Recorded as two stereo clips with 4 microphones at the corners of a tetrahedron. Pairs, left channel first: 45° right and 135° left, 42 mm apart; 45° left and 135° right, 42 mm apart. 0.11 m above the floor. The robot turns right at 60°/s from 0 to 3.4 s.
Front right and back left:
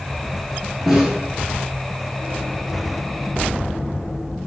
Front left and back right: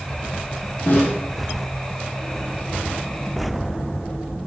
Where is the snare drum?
50° left, 0.7 m; by 1.2 s 65° left, 0.7 m.